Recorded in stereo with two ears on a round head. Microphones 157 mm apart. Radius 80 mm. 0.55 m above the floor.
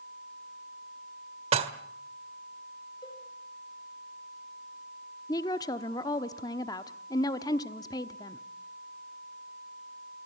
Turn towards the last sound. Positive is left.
turn(degrees=20)  # may be behind; listen again after turning